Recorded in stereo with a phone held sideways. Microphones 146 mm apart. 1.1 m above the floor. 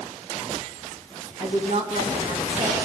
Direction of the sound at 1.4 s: 35° right (ahead or behind).